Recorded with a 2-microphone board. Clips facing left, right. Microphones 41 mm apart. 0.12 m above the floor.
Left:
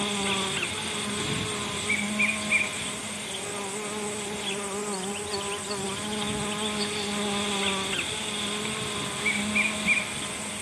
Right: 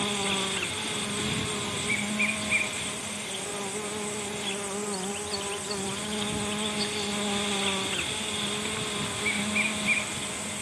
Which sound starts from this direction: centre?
An insect, at 0.0 s.